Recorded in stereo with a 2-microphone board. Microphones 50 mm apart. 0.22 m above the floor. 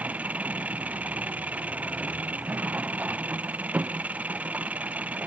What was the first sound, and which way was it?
An engine running, 30° right (ahead or behind).